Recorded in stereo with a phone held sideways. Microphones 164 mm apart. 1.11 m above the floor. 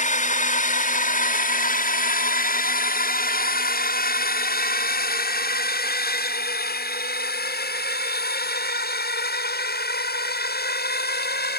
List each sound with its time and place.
0.0 s a drone: 50° left (ahead or behind); by 11.6 s 75° left (ahead or behind)